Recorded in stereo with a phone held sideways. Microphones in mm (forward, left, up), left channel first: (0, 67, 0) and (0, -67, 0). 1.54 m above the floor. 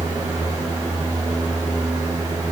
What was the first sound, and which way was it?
A fan, 30° right (ahead or behind).